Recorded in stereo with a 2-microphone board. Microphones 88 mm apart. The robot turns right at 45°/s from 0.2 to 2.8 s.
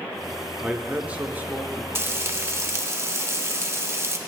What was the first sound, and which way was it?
A man speaking, 10° right (ahead or behind).